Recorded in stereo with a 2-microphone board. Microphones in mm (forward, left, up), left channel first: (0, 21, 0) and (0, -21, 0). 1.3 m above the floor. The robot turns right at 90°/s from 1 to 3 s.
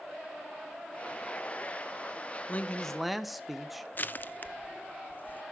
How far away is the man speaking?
About 0.9 m.